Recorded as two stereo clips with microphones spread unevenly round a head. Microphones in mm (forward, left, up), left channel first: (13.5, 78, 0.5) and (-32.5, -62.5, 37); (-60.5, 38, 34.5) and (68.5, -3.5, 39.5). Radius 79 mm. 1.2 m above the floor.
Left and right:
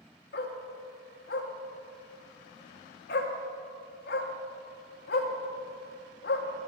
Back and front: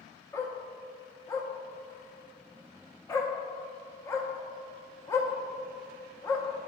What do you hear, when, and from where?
0.3 s a dog barking: 95° left, 0.9 m